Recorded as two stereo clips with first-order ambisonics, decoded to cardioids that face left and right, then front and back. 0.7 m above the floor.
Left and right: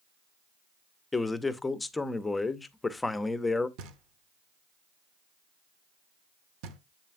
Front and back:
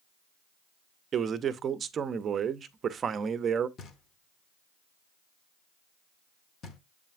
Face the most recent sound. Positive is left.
turn(degrees=-65)